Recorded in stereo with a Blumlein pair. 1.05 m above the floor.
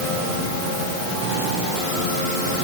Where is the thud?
I don't hear a thud.